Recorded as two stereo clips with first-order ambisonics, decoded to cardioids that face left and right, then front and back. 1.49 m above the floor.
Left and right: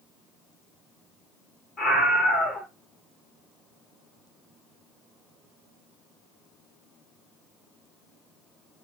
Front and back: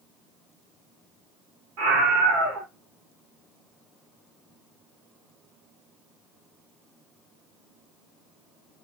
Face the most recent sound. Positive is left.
turn(degrees=175)